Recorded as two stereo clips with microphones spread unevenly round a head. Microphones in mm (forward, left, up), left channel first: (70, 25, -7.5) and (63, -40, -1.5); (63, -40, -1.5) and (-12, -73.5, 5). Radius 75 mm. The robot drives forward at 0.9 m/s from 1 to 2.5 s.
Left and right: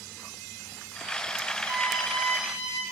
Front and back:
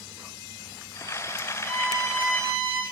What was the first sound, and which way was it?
A violin, 130° left.